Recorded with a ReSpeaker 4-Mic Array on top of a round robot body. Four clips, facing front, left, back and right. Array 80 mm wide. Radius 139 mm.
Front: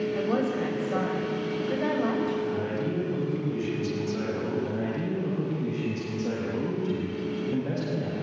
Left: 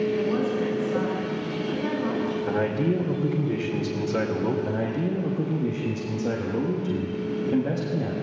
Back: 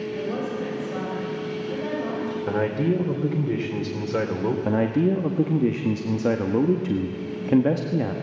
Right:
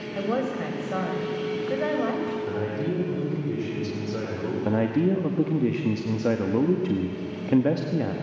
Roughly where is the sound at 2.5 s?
Behind.